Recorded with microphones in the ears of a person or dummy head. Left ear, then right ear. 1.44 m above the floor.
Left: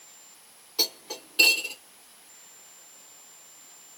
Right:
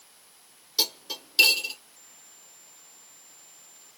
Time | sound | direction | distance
0.8 | cutlery clinking | 35° right (ahead or behind) | 1.5 m